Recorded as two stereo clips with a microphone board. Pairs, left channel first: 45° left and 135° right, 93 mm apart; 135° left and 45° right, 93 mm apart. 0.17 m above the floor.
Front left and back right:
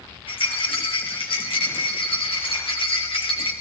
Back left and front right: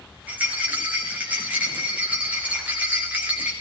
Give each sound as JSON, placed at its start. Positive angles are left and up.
{"t": 0.3, "sound": "a rattle", "azimuth_deg": 30, "distance_m": 3.0}